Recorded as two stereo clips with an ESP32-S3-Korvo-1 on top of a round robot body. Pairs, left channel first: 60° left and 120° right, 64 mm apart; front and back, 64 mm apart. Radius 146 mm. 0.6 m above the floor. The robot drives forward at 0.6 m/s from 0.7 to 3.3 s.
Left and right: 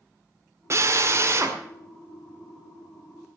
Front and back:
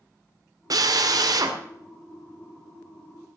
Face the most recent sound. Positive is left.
turn(degrees=-170)